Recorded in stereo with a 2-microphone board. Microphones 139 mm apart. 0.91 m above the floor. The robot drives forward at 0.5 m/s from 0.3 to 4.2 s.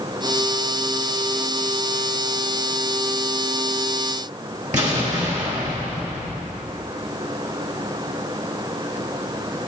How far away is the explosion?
About 3.5 m.